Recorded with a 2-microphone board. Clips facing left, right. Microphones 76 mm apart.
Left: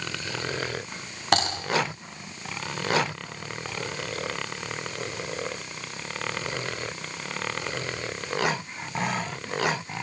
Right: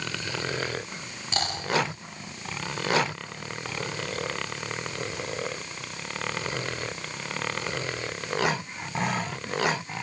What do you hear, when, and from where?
1.3 s typing on a keyboard: 70° left (ahead or behind), 9 m